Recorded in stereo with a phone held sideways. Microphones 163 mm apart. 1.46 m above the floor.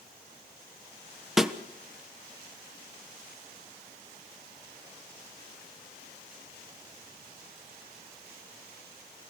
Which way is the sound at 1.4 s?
Centre (ahead or behind).